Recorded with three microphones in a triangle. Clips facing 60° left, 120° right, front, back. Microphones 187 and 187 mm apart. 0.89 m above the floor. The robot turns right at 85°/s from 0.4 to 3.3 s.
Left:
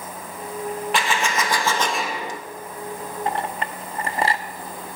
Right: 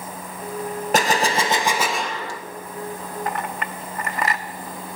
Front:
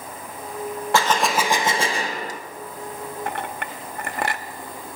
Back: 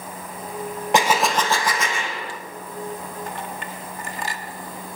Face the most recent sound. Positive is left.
turn(degrees=5)